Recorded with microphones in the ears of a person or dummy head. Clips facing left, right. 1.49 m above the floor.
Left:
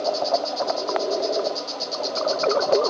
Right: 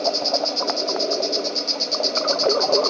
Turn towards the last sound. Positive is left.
turn(degrees=-35)  # may be behind; listen again after turning